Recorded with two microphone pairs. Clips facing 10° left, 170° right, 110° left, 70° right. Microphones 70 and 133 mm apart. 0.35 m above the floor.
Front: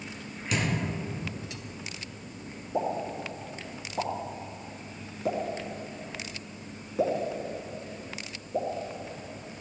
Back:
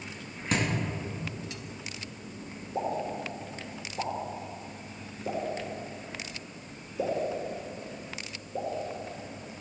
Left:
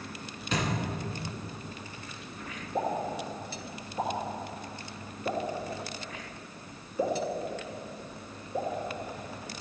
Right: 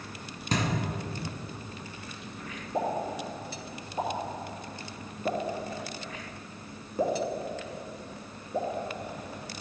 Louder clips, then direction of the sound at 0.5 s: Back 1 dB, right 2 dB; 115° right.